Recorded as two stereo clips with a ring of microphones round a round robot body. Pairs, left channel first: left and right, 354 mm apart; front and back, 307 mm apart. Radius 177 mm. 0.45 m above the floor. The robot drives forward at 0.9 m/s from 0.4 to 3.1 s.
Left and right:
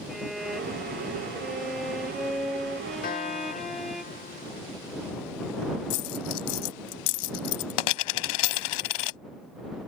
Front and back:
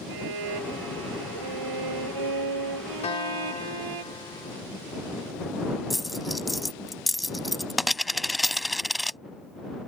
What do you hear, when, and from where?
0.1 s a violin: straight behind
3.0 s a guitar: 50° left; by 4.6 s 55° left
5.9 s a dropped coin: 90° left